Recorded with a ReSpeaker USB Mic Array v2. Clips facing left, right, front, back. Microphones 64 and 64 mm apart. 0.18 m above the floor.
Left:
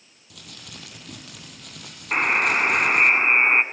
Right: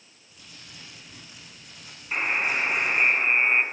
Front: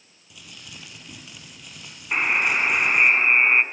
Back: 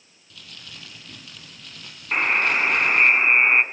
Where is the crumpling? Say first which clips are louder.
Left 5 dB, even; 75° left, 4.5 m.